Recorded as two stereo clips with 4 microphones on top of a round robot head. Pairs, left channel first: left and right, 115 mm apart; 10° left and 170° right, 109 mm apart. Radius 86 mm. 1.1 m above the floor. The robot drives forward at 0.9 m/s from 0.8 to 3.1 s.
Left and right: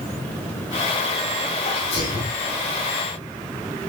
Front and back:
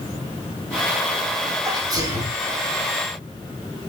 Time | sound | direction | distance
1.6 | a sneeze | 130° left | 5 m